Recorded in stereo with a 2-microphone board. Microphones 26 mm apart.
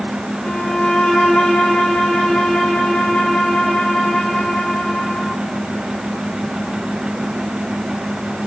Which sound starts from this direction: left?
A violin, at 0.4 s.